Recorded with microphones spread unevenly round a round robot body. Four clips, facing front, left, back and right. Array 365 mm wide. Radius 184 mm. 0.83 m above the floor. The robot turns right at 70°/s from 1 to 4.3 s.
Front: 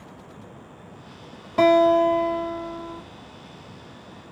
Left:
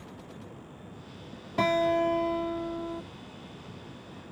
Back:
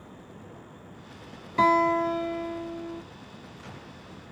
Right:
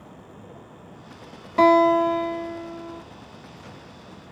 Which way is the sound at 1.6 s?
25° right.